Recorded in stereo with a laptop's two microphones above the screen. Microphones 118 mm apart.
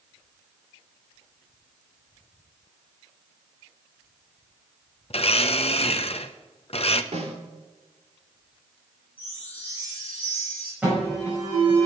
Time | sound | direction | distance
5.1 | a blender | 60° left (ahead or behind) | 0.7 m
7.1 | a snare drum | 75° right (ahead or behind) | 3 m
9.2 | a chime | 15° right (ahead or behind) | 5.5 m
10.8 | an alarm | 10° right (ahead or behind) | 6 m